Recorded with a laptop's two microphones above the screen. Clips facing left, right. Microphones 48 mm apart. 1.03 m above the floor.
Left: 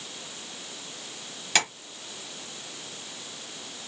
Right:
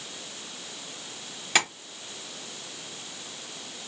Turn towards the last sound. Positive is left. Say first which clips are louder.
# right 1 dB
turn(degrees=-10)  # may be behind; listen again after turning